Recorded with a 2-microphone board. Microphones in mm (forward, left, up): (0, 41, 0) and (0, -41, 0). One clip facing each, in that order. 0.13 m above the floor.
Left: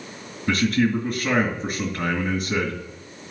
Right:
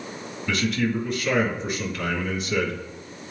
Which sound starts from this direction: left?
A man speaking, at 0.5 s.